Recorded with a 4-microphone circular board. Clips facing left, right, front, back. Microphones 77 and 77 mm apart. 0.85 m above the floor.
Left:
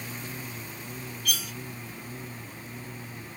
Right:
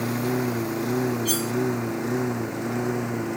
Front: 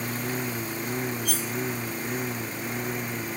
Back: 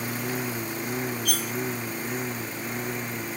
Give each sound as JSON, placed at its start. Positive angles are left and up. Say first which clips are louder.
{"t": 0.0, "sound": "a lawn mower", "louder": "right 15 dB, even", "azimuth_deg": -95}
{"t": 1.2, "sound": "cutlery clinking", "louder": "right 9 dB, back 1 dB", "azimuth_deg": -150}